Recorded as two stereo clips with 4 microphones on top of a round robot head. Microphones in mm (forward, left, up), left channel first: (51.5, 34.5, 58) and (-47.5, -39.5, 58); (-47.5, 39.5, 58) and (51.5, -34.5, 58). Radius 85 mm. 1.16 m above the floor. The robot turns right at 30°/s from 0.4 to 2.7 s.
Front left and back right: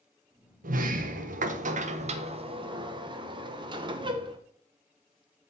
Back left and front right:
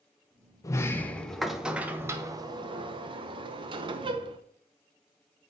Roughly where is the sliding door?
Behind right.